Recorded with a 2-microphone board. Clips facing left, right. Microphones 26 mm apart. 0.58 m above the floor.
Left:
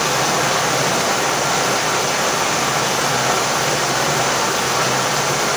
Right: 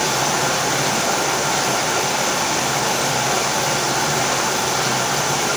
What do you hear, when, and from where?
0.0 s running water: 80° left, 1.2 m